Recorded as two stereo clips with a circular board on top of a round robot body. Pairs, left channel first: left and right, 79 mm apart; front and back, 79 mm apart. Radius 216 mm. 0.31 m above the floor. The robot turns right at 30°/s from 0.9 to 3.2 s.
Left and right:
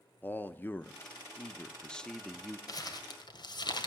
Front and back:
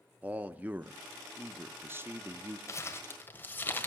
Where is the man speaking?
130° left, 0.9 m; by 2.6 s straight behind, 0.9 m.